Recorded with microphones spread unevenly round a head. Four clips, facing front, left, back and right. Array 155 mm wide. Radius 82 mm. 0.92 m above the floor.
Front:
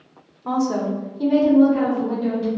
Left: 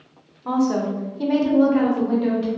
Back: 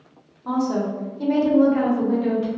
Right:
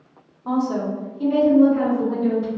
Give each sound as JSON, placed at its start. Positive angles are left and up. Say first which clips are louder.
{"t": 0.5, "sound": "a woman speaking", "louder": "left 2 dB, front 1 dB", "azimuth_deg": 10, "distance_m": 0.5}